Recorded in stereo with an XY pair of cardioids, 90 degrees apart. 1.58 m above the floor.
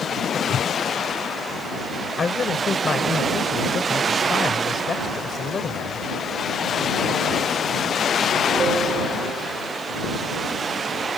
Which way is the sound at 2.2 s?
40° left.